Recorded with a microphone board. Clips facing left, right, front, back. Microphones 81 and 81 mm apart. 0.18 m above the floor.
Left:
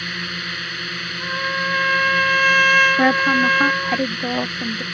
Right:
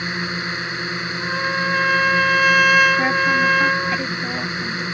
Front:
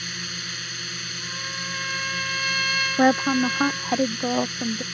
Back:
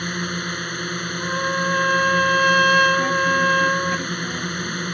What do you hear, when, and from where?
0.0 s a drone: 155° right
1.2 s a trumpet: 175° right
3.0 s a woman speaking: 30° left